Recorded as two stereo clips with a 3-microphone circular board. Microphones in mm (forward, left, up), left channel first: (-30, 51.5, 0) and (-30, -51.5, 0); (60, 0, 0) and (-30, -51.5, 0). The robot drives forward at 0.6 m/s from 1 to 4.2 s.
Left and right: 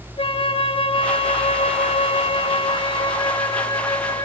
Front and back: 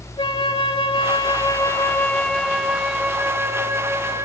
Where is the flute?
65° left, 1.0 m; by 4.3 s 150° left, 1.7 m.